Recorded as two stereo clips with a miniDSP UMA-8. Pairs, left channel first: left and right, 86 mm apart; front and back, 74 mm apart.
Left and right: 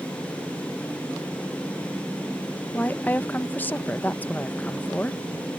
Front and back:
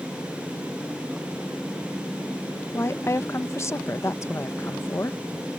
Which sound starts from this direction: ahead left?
A woman speaking, at 2.7 s.